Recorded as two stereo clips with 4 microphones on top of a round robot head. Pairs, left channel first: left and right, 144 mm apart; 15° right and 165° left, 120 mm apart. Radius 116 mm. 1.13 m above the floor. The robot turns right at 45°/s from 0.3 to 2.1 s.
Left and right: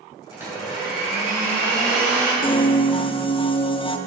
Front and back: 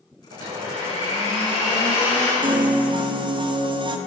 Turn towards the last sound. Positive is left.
turn(degrees=130)